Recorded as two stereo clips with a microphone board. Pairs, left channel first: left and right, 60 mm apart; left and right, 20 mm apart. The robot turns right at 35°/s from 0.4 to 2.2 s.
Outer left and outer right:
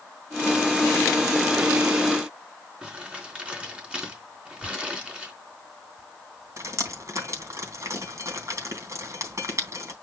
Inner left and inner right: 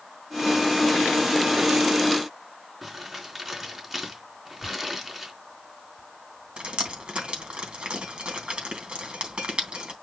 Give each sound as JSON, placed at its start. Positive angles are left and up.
{"t": 2.8, "sound": "crumpling", "side_deg": -20, "distance_m": 4.0}
{"t": 4.6, "sound": "tearing paper", "side_deg": 70, "distance_m": 1.5}
{"t": 6.6, "sound": "dripping", "side_deg": -55, "distance_m": 3.0}